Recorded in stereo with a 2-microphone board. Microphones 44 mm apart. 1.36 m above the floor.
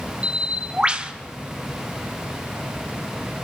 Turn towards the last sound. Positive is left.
turn(degrees=-25)  # may be behind; listen again after turning